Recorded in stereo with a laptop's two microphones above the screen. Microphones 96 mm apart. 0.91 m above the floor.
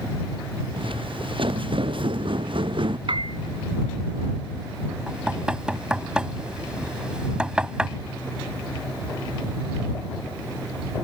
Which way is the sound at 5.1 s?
10° right (ahead or behind).